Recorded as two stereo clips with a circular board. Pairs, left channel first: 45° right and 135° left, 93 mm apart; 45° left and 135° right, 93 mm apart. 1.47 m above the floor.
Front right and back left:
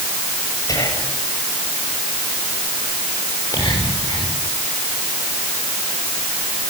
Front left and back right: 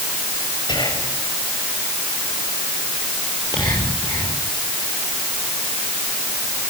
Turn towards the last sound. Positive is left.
turn(degrees=5)